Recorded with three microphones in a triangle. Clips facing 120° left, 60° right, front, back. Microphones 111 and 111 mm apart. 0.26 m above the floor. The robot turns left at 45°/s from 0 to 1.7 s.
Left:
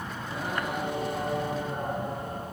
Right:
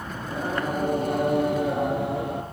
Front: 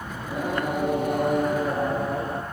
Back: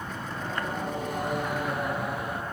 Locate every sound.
0.2 s singing: 15° left, 3.5 m; by 2.4 s 50° right, 3.5 m